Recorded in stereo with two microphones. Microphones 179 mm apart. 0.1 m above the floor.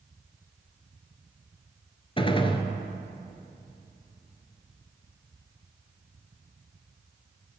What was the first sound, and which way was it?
A gunshot, 30° left (ahead or behind).